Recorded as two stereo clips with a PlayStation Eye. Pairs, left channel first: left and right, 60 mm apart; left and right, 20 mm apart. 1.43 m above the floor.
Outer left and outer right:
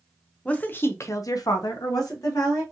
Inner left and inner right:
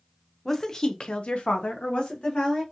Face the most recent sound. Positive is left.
turn(degrees=65)  # may be behind; listen again after turning